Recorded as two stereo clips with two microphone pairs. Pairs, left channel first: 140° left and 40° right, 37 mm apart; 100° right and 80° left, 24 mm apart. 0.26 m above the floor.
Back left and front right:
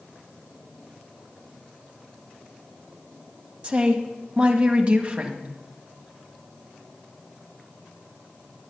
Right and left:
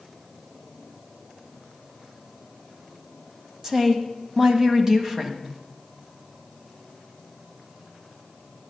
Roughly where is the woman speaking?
Ahead.